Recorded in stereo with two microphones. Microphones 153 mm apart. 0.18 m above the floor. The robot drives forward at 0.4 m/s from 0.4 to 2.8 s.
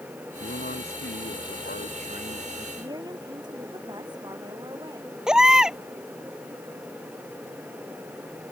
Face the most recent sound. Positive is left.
turn(degrees=-5)  # may be behind; listen again after turning